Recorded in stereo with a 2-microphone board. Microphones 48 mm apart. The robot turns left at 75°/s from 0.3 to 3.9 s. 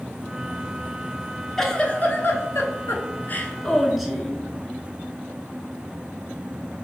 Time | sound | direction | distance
1.6 | a giggle | 170° left | 0.6 m